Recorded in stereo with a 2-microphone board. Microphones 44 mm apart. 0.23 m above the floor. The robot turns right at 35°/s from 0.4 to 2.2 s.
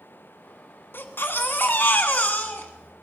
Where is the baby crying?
90° left, 1.4 m; by 2.9 s 135° left, 1.4 m.